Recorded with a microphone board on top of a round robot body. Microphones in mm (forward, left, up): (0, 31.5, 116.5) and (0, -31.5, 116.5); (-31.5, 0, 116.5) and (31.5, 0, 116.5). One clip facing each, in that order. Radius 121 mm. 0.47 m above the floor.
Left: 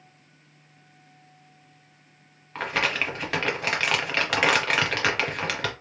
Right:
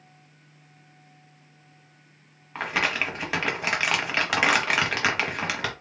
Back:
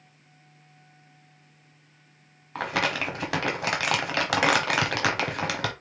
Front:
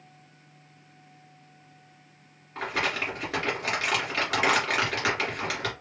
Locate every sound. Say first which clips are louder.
2.5 s crumpling: even, back 2 dB; 175° right, 1.1 m